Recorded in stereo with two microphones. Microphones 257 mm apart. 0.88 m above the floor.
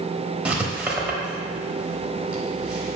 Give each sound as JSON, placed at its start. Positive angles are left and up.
{"t": 0.5, "sound": "writing", "side_deg": -5, "distance_m": 0.7}